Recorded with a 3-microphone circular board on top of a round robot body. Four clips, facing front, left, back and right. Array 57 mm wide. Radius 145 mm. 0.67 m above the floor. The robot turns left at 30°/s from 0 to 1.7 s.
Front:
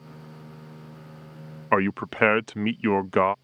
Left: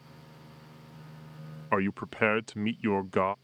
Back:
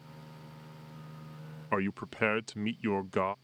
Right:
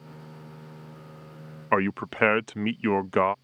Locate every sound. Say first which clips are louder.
1.7 s a man speaking: right 4 dB, front 10 dB; 30° right